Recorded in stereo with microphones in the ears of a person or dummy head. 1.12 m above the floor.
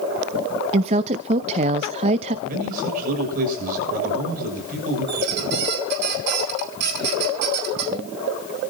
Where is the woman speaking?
35° right (ahead or behind), 0.6 m.